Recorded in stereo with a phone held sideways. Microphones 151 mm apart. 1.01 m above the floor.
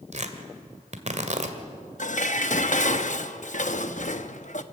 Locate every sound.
0.1 s tearing paper: 50° right (ahead or behind), 1.8 m
2.0 s dishes clattering: 55° left (ahead or behind), 0.9 m